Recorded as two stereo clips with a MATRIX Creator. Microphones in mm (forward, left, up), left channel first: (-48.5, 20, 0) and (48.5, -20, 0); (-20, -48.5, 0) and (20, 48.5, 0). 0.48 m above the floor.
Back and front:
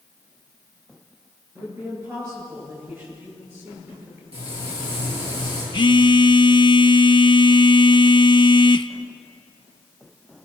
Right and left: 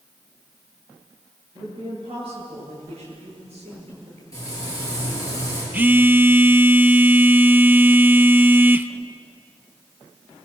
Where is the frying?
55° right, 9.5 m.